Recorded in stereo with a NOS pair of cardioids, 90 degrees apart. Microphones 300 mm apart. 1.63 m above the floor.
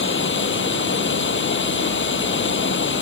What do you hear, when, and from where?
0.0 s running water: 40° left